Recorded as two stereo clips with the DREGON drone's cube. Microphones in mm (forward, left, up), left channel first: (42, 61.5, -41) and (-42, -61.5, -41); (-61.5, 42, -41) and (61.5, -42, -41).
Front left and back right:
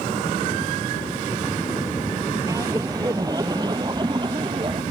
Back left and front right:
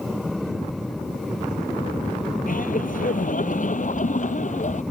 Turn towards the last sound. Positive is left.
turn(degrees=180)